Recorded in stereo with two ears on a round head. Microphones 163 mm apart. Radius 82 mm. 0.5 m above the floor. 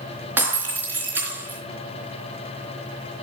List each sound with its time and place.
0.4 s breaking glass: 10° right (ahead or behind), 4 m